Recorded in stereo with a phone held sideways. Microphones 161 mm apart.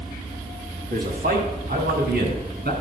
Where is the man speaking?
75° right (ahead or behind), 2 m; by 2.7 s 80° right, 3 m.